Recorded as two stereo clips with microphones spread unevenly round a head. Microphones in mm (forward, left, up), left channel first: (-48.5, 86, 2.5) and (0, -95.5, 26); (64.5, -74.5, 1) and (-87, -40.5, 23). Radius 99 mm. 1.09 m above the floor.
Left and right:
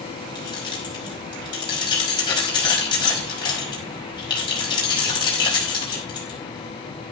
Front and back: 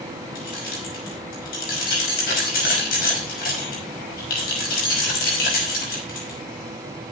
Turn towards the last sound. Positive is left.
turn(degrees=35)